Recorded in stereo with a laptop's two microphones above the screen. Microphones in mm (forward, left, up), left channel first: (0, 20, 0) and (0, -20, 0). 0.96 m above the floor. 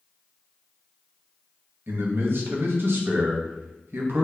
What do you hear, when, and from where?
1.9 s a man speaking: 65° right (ahead or behind), 0.7 m